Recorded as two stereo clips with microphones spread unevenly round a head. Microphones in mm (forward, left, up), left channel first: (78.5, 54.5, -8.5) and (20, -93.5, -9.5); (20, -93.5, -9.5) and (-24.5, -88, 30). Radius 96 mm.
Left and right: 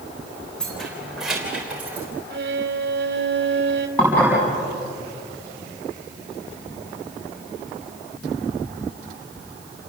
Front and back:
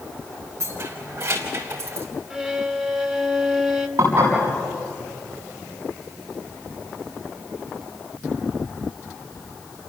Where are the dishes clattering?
150° left, 7 m.